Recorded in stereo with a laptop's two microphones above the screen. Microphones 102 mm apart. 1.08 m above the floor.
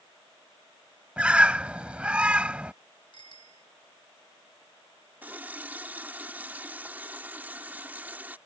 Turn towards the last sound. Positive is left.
turn(degrees=-15)  # may be behind; listen again after turning